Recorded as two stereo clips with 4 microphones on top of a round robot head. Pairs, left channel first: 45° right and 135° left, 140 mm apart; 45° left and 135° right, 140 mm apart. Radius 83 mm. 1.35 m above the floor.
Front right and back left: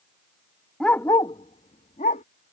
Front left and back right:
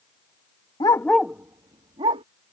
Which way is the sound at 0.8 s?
35° left.